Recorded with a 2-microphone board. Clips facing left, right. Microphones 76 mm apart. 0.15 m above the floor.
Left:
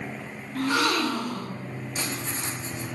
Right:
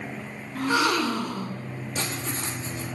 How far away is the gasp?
About 0.5 m.